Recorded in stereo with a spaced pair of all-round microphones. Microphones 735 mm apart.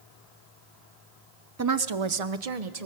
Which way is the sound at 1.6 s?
25° right (ahead or behind).